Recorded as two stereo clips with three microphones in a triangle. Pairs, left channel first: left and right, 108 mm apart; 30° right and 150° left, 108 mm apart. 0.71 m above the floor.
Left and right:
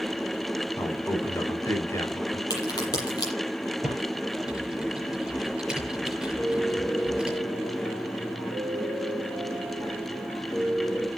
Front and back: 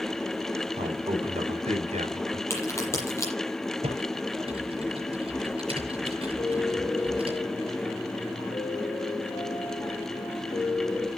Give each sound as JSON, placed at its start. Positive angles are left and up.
{"t": 0.8, "sound": "a man speaking", "azimuth_deg": 155, "distance_m": 6.0}
{"t": 2.5, "sound": "a crack", "azimuth_deg": 35, "distance_m": 8.0}
{"t": 3.8, "sound": "typing on a keyboard", "azimuth_deg": -175, "distance_m": 7.0}
{"t": 6.4, "sound": "a piano", "azimuth_deg": 30, "distance_m": 5.0}